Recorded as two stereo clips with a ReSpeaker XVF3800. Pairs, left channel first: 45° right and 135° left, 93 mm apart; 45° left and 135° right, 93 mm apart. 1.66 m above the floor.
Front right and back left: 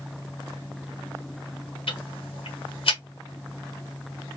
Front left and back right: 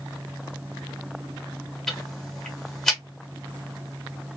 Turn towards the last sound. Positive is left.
turn(degrees=-40)